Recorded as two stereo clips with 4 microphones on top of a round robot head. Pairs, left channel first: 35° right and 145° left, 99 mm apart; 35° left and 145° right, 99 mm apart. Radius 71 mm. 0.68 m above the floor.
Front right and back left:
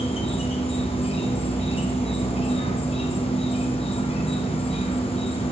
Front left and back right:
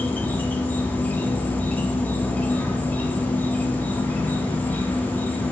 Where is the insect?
35° right, 0.9 m.